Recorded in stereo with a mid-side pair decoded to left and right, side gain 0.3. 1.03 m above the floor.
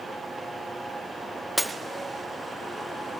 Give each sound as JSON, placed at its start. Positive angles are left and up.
{"t": 1.6, "sound": "breaking glass", "azimuth_deg": -10, "distance_m": 0.8}